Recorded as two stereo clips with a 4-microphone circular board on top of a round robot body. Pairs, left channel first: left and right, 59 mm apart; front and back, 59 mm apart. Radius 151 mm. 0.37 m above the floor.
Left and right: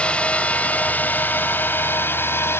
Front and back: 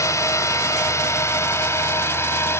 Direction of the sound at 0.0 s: 20° left.